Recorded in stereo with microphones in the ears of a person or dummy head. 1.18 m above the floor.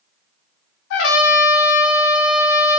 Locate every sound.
0.9 s a trumpet: 70° left (ahead or behind), 0.6 m